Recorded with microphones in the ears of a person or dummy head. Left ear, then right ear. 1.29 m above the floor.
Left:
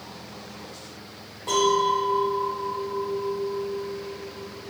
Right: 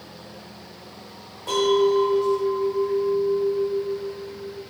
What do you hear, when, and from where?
1.5 s a clink: centre (ahead or behind), 0.8 m